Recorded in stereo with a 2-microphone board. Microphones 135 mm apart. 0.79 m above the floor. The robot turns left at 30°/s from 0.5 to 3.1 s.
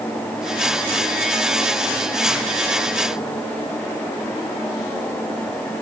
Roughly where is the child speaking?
No child speaking in this recording.